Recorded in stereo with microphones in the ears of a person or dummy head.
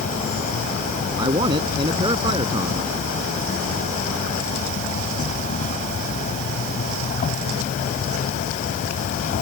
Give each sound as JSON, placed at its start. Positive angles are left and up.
{"t": 0.0, "sound": "an insect", "side_deg": 40}
{"t": 1.2, "sound": "a man speaking", "side_deg": -25}